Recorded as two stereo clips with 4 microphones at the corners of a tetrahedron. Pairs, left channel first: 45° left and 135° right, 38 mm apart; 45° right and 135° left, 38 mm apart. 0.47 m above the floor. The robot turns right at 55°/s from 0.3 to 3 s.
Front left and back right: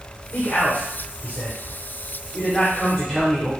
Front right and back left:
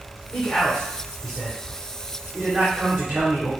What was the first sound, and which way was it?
A man speaking, 10° right.